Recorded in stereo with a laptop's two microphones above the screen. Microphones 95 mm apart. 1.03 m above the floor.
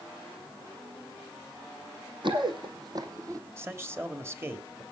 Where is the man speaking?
25° right (ahead or behind), 3 m.